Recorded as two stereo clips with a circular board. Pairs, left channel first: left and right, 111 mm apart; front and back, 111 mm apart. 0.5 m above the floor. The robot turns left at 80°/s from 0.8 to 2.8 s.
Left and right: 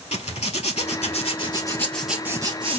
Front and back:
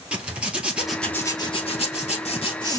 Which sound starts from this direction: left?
A zipper, at 0.1 s.